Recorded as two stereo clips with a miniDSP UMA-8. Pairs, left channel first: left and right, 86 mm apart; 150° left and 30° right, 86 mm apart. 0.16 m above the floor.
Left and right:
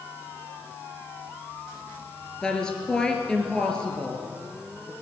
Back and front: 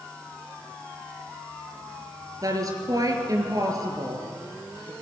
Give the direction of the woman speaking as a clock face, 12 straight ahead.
12 o'clock.